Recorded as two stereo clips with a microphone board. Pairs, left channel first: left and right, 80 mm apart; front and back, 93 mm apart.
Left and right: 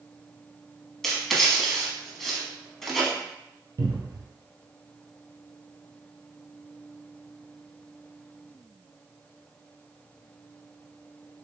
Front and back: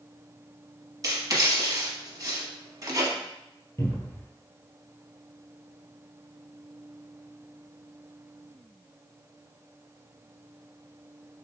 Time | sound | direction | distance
1.0 | writing | 175° left | 0.9 m
3.8 | a cupboard door | 55° right | 1.1 m